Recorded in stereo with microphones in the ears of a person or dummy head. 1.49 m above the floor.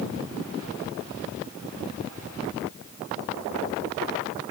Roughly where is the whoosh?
No whoosh in this recording.